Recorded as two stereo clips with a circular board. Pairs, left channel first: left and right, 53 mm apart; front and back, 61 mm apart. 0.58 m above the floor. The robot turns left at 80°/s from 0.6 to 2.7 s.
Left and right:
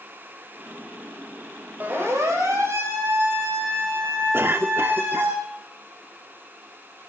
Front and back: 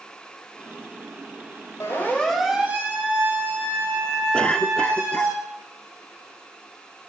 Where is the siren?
35° right, 4 m; by 5.3 s 140° right, 6.5 m.